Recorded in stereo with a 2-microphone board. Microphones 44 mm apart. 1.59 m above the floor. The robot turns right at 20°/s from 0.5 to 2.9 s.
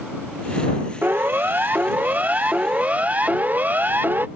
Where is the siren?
55° right (ahead or behind); by 4.3 s 50° right (ahead or behind).